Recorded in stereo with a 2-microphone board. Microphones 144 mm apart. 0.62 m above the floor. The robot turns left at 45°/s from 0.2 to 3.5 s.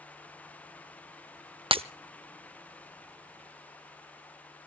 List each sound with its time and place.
1.7 s breaking glass: 35° right (ahead or behind), 0.6 m; by 1.8 s 40° right (ahead or behind), 0.6 m